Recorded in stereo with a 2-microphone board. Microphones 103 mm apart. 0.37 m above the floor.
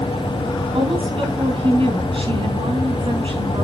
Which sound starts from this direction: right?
A woman speaking, at 0.7 s.